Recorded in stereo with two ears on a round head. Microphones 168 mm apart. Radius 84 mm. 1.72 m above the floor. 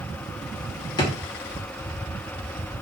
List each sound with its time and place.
1.0 s a drawer: 20° left (ahead or behind), 0.8 m